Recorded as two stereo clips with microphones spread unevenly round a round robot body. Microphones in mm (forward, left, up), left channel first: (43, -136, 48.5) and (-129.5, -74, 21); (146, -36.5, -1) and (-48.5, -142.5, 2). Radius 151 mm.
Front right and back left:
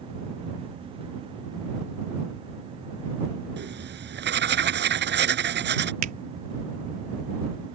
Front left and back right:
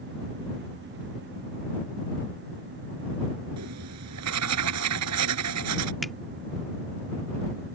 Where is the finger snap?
120° left.